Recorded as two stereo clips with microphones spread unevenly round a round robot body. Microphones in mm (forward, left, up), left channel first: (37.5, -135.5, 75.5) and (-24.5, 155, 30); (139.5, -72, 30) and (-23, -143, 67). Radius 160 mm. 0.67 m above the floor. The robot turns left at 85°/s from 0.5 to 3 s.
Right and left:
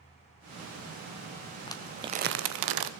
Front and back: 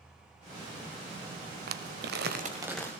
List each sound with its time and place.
1.7 s crumpling: 145° right, 0.7 m; by 2.9 s 110° left, 0.7 m